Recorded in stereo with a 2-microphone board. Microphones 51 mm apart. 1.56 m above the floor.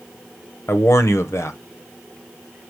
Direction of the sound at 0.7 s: 75° left (ahead or behind).